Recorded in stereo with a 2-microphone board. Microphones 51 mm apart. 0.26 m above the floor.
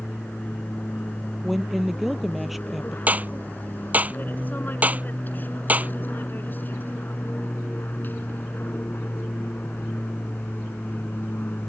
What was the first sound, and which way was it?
An aircraft, 35° left (ahead or behind).